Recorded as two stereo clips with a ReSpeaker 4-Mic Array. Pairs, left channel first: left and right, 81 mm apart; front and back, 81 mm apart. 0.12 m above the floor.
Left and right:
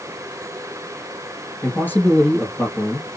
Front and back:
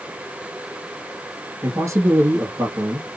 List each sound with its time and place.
1.6 s a man speaking: 145° left, 1.7 m